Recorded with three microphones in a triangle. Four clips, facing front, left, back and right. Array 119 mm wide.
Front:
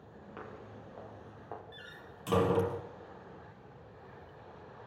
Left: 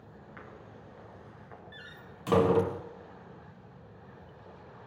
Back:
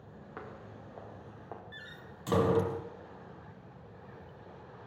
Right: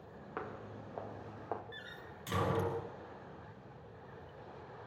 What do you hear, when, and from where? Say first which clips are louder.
0.4 s footsteps: right 7 dB, back 1 dB; 100° right, 5 m; by 1.6 s 85° right, 4 m
1.7 s a door slam: left 1 dB, back 1 dB; 100° left, 3.5 m